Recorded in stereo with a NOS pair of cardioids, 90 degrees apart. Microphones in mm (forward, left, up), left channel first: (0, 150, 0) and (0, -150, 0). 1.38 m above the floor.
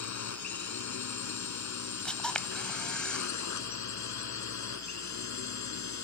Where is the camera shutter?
5° left.